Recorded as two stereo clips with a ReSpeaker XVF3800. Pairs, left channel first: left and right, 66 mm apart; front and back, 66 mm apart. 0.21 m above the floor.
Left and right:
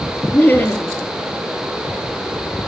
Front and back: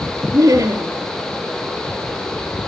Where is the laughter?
150° left, 5.5 m.